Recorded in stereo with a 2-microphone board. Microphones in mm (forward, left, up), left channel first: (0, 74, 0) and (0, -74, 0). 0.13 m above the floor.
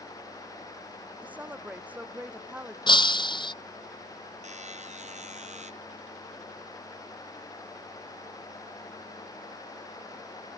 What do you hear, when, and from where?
1.2 s a woman speaking: 10° right (ahead or behind)
2.9 s breaking glass: 30° left (ahead or behind)
4.4 s a buzzer: 50° right (ahead or behind)